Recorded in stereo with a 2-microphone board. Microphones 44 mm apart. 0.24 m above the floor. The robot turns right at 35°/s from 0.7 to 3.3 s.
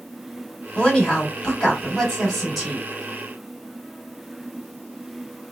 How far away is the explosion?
I don't hear an explosion.